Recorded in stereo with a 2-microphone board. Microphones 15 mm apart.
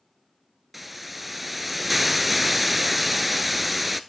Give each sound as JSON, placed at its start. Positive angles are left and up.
{"t": 0.7, "sound": "a hiss", "side_deg": -10, "distance_m": 0.6}